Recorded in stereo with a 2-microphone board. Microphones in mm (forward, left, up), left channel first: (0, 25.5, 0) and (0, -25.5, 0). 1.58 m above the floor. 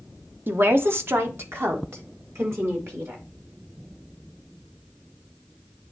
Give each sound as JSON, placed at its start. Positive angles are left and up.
{"t": 0.5, "sound": "a woman speaking", "side_deg": -45, "distance_m": 0.7}